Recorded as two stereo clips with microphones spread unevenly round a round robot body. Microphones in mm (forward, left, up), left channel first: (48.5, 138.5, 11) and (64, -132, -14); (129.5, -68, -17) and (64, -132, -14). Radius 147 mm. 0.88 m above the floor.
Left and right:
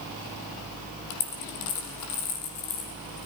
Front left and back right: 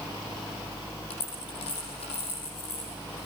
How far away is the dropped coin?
About 5.5 m.